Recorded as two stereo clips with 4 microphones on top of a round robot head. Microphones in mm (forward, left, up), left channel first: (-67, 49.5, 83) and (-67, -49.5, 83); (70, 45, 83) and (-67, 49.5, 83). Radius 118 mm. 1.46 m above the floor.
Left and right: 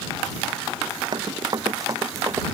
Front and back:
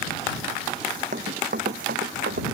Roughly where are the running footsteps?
Behind right.